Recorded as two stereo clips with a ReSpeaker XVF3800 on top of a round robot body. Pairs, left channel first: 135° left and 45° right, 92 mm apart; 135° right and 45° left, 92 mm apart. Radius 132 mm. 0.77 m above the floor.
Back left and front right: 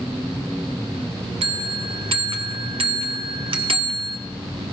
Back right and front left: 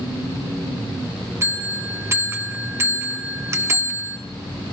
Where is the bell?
20° right, 0.7 m.